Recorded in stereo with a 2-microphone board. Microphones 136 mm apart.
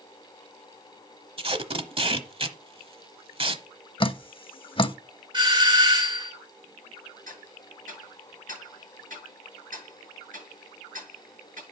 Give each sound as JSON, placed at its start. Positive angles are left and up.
{"t": 1.4, "sound": "tape being pulled", "side_deg": -40, "distance_m": 1.0}
{"t": 4.0, "sound": "dripping", "side_deg": 35, "distance_m": 0.5}
{"t": 5.3, "sound": "a doorbell", "side_deg": -35, "distance_m": 2.0}
{"t": 7.3, "sound": "ticking", "side_deg": -75, "distance_m": 7.0}